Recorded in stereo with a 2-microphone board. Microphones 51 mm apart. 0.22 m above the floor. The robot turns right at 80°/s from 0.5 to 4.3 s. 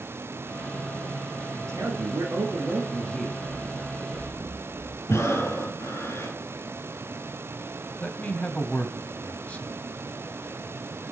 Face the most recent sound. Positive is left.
turn(degrees=25)  # may be behind; listen again after turning